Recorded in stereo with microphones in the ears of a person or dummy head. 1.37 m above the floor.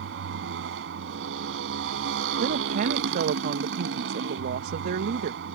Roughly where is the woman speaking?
Right.